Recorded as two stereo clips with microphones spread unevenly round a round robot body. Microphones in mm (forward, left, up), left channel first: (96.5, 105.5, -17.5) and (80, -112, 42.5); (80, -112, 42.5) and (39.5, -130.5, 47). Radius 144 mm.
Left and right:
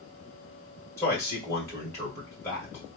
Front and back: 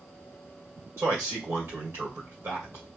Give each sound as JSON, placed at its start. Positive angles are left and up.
{"t": 1.0, "sound": "a man speaking", "azimuth_deg": 160, "distance_m": 1.8}